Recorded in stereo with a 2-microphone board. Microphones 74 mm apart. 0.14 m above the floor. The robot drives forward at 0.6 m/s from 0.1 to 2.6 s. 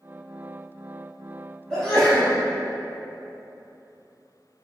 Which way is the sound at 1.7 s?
10° left (ahead or behind).